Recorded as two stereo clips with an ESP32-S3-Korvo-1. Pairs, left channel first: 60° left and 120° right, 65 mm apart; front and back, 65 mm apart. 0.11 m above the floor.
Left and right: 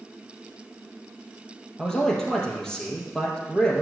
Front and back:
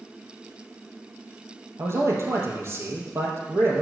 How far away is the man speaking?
About 3 m.